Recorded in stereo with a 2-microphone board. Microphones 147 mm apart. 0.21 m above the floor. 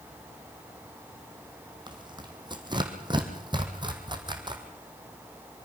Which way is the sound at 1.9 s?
30° right (ahead or behind).